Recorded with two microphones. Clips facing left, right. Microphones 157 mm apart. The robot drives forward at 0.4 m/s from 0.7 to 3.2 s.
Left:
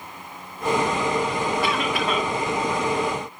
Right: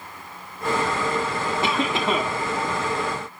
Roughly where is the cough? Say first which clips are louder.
Even; right.